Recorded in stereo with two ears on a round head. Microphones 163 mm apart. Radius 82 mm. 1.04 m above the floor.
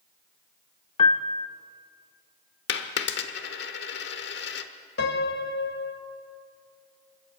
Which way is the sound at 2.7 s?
65° left (ahead or behind).